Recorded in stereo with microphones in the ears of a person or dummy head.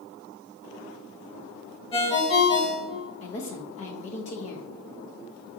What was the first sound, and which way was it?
A ringtone, 30° left (ahead or behind).